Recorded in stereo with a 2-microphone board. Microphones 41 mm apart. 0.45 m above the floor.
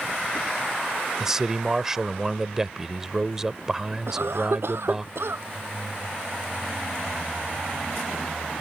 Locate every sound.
1.2 s a man speaking: 10° right (ahead or behind)
4.1 s a cough: 70° right (ahead or behind)